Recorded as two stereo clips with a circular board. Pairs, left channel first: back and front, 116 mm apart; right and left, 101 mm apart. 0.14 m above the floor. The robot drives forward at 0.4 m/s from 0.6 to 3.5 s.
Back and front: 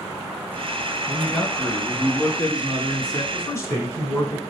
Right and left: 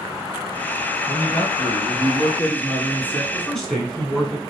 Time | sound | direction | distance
1.1 | a man speaking | 80° right | 1.2 m
3.3 | a man speaking | 170° right | 1.2 m